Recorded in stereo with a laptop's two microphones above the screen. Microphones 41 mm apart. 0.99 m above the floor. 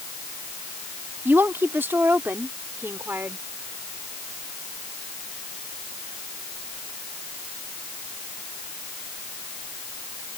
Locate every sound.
1.2 s a woman speaking: 60° right (ahead or behind)